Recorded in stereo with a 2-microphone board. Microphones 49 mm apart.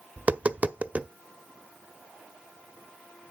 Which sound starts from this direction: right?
Tapping, at 0.2 s.